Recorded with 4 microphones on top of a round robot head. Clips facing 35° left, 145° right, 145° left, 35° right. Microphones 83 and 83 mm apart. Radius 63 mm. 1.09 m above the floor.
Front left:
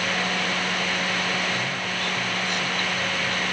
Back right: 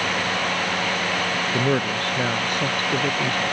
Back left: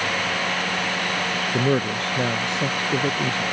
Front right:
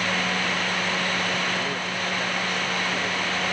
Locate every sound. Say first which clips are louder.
1.5 s a man speaking: back right 7 dB, back left 7 dB; 165° left; by 3.4 s 160° left